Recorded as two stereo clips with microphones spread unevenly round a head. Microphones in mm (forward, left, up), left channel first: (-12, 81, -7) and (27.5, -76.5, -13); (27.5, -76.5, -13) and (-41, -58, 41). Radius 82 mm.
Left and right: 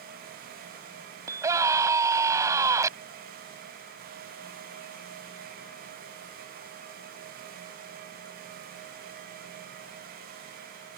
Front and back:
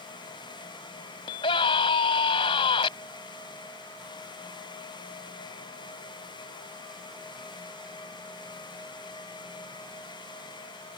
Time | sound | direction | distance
1.3 | a scream | 5° right | ?